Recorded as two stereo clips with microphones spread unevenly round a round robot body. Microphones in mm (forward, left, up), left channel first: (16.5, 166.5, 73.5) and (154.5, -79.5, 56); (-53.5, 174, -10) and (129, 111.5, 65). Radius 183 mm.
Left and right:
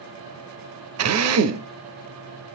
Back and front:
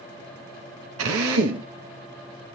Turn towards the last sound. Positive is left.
turn(degrees=-35)